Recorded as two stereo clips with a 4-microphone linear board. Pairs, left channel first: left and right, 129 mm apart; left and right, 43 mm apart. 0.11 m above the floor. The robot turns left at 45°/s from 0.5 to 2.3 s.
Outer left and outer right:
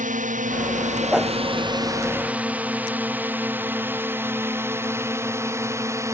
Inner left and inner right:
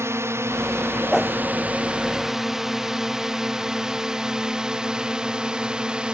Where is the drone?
85° right; by 6.2 s 25° right (ahead or behind).